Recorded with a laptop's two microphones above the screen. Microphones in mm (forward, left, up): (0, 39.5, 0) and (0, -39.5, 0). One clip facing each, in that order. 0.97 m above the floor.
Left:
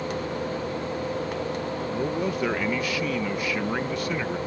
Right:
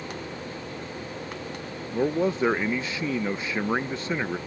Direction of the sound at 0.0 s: 65° left (ahead or behind).